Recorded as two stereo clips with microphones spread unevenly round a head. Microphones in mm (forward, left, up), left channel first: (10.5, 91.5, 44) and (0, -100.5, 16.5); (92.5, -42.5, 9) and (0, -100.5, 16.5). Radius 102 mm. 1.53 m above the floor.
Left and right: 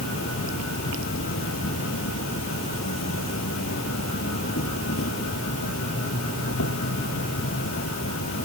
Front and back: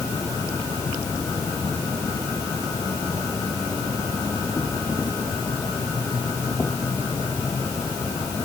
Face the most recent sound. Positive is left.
turn(degrees=110)